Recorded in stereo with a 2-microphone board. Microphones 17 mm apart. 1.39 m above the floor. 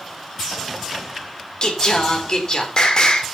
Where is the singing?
45° left (ahead or behind), 4 m.